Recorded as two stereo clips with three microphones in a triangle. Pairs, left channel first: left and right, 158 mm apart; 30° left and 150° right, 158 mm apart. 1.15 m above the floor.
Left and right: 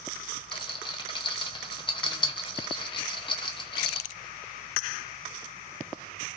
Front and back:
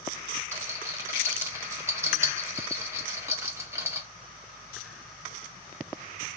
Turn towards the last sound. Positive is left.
turn(degrees=145)